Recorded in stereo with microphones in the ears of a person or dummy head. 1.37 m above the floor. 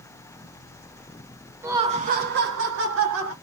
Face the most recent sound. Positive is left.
turn(degrees=-85)